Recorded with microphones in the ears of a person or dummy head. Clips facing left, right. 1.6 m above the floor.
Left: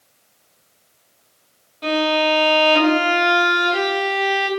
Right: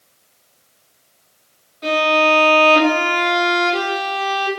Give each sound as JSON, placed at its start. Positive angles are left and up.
{"t": 1.8, "sound": "a violin", "side_deg": 35, "distance_m": 1.2}